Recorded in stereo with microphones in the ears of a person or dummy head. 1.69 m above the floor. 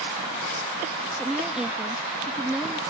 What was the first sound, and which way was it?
A woman speaking, 5° right (ahead or behind).